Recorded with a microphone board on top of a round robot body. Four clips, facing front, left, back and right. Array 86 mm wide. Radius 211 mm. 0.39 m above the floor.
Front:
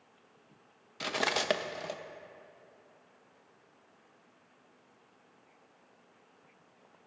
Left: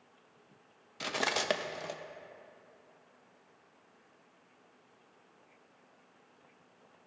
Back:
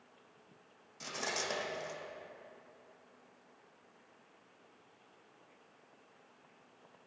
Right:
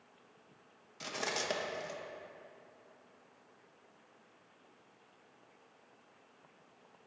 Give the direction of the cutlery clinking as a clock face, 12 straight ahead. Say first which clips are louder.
Left 5 dB, front 7 dB; 11 o'clock.